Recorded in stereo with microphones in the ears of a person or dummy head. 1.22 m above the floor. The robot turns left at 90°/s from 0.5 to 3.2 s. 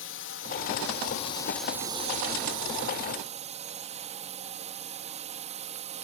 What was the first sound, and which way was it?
A drone, 105° left.